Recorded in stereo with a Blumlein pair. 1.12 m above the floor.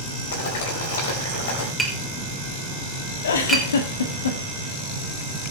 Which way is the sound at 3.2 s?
65° left.